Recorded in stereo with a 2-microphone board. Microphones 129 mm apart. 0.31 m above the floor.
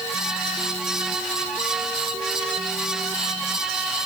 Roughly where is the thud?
I don't hear a thud.